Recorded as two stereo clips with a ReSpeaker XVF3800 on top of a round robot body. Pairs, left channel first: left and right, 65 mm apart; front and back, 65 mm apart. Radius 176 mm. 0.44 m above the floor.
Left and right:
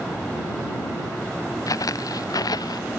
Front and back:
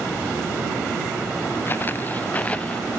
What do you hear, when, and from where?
1.7 s footsteps: 60° left; by 3.0 s 80° left